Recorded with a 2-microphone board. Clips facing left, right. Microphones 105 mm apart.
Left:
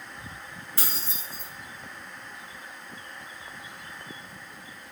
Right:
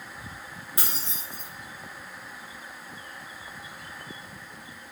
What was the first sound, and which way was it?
Keys jangling, 20° right (ahead or behind).